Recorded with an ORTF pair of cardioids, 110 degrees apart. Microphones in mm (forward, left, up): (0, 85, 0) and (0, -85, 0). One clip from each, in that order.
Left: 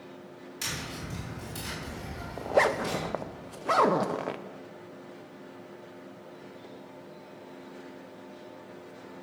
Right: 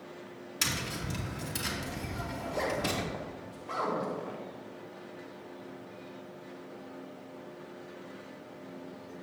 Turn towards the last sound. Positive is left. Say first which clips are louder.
# left 9 dB
turn(degrees=60)